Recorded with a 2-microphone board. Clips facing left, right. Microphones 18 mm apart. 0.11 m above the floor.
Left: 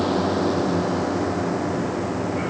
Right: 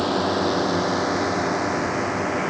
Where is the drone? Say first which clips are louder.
Even; 15° right (ahead or behind); by 2.5 s 60° right (ahead or behind).